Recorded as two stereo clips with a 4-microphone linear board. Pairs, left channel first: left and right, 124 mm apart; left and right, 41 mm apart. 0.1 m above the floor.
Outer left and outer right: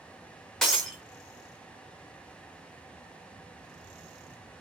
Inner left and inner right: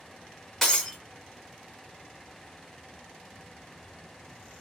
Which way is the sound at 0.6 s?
5° left (ahead or behind).